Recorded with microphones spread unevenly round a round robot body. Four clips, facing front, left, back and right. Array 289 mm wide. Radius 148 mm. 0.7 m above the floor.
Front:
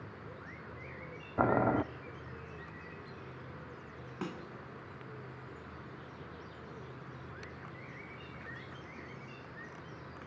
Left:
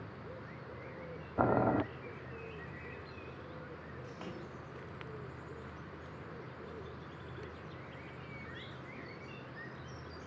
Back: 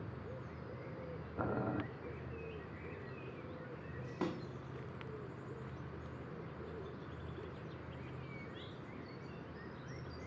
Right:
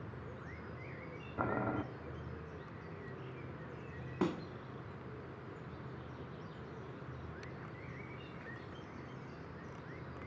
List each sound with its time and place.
1.4 s boiling: 35° left, 0.8 m
4.2 s a snare drum: 95° right, 1.6 m